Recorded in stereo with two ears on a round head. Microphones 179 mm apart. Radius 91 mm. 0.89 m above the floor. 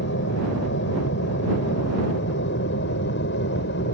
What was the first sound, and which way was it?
An aircraft, 65° left (ahead or behind).